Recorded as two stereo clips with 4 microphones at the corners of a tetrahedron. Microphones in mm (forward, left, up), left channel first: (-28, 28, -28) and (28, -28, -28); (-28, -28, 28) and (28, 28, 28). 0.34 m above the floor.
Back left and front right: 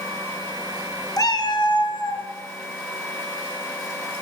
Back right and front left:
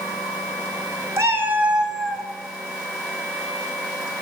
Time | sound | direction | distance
1.2 | a cat meowing | 100° left | 0.9 m